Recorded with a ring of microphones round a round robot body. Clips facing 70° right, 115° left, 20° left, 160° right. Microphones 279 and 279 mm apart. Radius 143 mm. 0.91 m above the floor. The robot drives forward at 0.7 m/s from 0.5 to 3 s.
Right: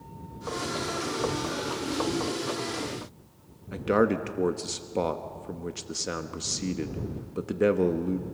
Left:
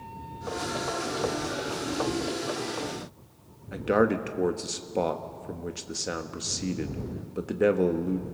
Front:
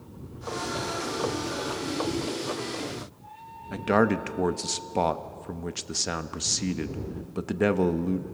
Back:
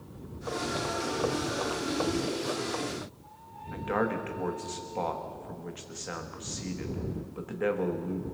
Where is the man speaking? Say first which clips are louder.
Even, front 7 dB; 20° left, 1.1 m.